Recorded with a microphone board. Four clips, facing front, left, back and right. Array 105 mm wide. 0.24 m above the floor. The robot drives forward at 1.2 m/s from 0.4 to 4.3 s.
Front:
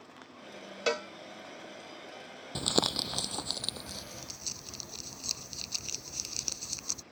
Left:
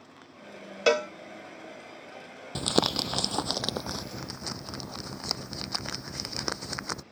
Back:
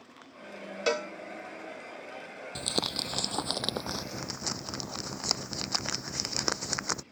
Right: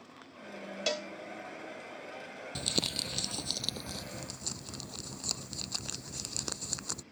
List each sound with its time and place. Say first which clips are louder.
0.9 s a cowbell: left 12 dB, back 2 dB; 95° left; by 1.1 s 120° left
2.5 s crumpling: left 11 dB, front 3 dB; 65° left; by 7.0 s 145° left